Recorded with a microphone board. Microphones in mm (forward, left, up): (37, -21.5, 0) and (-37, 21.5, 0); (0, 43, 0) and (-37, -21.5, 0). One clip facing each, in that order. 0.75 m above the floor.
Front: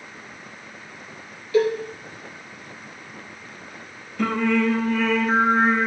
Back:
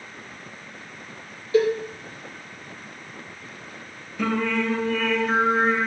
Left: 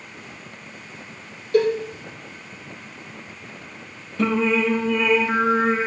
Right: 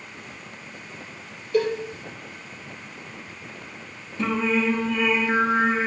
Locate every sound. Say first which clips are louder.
1.5 s a cowbell: even, left 4 dB; 90° left, 3 m
4.2 s singing: front 3 dB, left 3 dB; 65° left, 4.5 m